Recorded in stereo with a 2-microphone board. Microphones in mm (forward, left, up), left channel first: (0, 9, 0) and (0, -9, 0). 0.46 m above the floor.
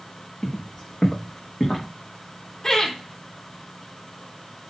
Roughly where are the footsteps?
Left.